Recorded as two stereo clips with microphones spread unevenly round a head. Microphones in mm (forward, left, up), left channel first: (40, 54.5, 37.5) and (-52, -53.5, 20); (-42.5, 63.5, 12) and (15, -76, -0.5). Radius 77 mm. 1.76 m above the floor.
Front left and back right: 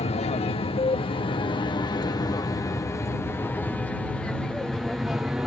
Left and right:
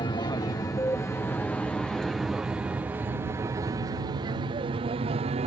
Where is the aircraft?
65° left; by 5.5 s 50° right.